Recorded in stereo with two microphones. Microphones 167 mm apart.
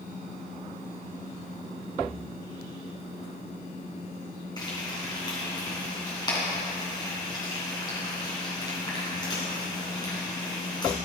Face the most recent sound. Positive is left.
turn(degrees=25)  # may be behind; listen again after turning